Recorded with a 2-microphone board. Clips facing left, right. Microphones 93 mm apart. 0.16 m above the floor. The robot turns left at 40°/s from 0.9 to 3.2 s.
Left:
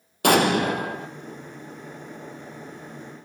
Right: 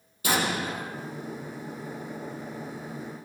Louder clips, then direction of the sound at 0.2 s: Left 9 dB; 65° left (ahead or behind).